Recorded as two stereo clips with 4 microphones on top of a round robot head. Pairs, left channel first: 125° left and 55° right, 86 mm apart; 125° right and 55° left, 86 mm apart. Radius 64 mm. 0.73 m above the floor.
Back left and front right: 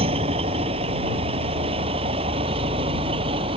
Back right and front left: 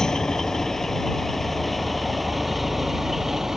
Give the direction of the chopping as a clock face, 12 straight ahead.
No chopping in this recording.